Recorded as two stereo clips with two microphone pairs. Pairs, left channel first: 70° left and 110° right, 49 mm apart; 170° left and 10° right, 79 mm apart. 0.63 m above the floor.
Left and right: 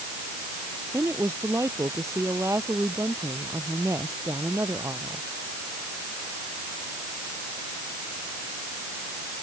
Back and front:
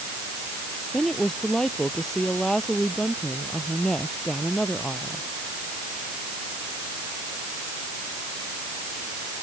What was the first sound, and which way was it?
A woman speaking, 105° right.